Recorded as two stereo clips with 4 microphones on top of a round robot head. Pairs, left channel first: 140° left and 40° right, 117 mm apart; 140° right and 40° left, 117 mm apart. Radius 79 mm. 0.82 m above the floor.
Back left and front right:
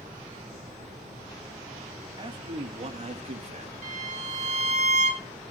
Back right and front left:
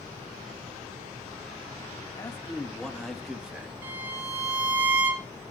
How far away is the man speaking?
About 1.4 m.